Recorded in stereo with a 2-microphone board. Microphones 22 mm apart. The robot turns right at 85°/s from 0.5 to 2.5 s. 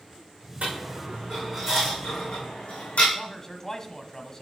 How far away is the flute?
I don't hear a flute.